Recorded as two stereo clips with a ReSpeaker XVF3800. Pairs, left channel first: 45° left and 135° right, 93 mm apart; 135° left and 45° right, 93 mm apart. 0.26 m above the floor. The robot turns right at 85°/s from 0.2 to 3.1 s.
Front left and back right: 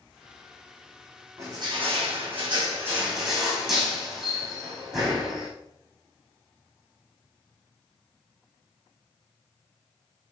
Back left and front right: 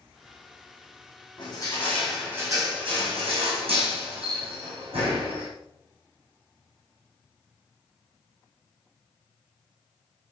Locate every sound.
1.4 s crushing: 165° left, 5.5 m; by 5.5 s 50° right, 5.5 m